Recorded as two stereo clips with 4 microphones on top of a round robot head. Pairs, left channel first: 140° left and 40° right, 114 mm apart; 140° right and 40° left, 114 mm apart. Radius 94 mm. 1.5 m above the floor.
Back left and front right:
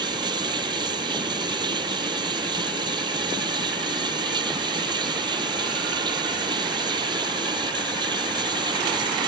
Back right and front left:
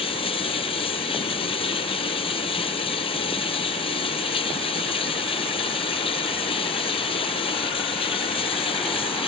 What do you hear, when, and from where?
0.0 s running water: 95° right